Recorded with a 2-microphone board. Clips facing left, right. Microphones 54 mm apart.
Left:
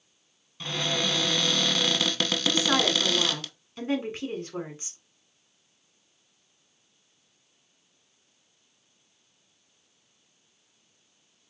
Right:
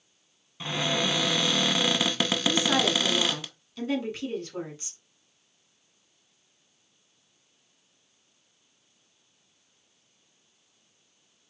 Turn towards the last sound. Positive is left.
turn(degrees=30)  # may be behind; listen again after turning